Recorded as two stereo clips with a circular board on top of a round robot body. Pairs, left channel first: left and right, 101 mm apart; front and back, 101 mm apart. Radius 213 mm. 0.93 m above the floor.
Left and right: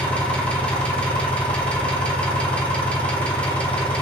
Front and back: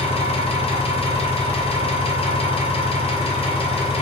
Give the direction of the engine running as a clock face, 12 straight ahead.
12 o'clock.